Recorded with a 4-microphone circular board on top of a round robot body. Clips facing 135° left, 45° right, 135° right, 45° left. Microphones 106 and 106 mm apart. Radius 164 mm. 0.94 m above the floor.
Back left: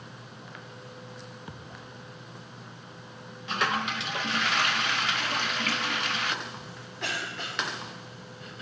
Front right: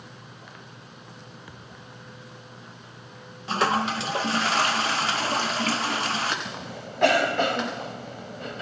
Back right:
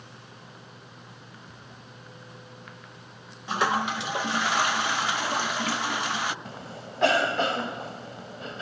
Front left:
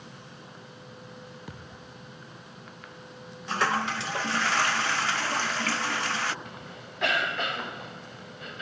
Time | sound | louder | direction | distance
1.5 | a thud | back left 1 dB, front left 3 dB | 70° left | ?
3.5 | a toilet flushing | front right 5 dB, back right 2 dB | 70° right | ?
6.5 | a cough | front right 6 dB, back right 3 dB | 75° right | ?